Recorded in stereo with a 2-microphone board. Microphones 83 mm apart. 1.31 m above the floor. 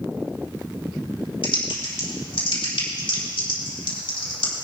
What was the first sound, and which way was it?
Typing on a keyboard, 85° left.